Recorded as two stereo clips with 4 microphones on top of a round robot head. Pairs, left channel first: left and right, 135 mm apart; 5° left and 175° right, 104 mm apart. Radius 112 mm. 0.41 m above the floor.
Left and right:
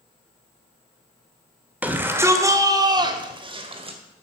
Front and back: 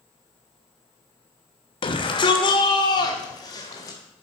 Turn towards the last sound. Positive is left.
turn(degrees=-50)